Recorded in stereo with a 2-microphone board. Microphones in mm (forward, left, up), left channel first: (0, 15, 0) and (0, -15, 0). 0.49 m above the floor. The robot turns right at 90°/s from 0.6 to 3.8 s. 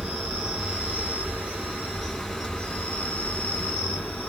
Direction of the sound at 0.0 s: 145° right.